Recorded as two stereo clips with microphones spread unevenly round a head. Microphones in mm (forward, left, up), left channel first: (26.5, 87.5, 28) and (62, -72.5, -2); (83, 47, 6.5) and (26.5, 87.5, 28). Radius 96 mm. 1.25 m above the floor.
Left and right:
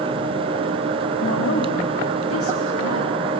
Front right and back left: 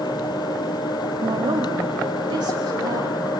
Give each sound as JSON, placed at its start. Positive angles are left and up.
{"t": 1.2, "sound": "a woman speaking", "azimuth_deg": 135, "distance_m": 2.5}